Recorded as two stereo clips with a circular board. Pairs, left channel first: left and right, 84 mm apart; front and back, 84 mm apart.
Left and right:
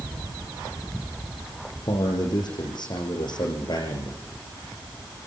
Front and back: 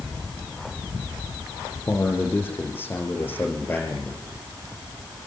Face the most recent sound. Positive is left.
turn(degrees=65)